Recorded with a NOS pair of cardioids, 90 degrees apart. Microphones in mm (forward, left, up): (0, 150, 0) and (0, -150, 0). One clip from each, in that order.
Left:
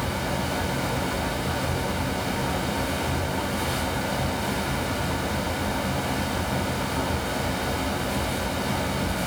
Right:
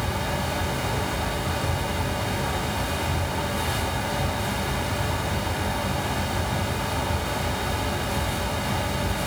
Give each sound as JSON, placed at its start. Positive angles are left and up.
{"t": 0.0, "sound": "a fan", "azimuth_deg": 0, "distance_m": 0.8}